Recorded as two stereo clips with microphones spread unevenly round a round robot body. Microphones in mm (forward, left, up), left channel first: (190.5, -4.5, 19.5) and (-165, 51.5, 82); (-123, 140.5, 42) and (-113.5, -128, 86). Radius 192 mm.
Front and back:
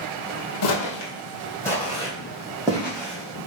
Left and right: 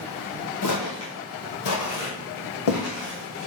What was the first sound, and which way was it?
Footsteps, 45° left.